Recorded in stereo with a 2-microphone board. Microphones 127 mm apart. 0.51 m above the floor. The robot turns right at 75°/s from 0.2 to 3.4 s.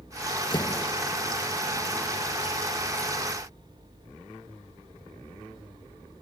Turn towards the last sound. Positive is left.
turn(degrees=0)